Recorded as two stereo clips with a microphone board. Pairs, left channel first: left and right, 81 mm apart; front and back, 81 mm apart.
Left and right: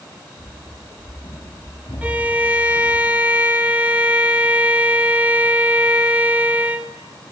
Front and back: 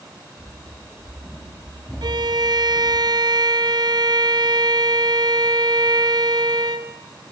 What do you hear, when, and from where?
0.4 s running footsteps: 60° left, 7 m; by 3.0 s 70° left, 6.5 m
2.0 s a violin: 160° right, 1.2 m